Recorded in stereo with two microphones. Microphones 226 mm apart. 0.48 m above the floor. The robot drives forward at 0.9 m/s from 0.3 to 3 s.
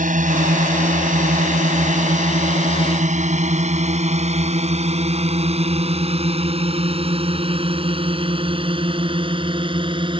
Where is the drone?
40° right (ahead or behind); by 10.2 s 25° right (ahead or behind).